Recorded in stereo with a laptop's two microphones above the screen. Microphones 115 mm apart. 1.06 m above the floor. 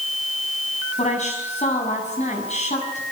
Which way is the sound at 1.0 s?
85° left.